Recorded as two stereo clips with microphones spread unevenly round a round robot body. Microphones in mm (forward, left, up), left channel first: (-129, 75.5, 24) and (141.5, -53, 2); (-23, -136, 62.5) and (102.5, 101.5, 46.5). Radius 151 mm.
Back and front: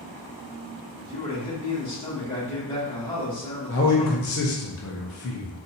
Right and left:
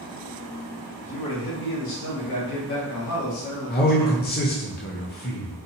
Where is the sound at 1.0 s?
130° right, 1.7 m.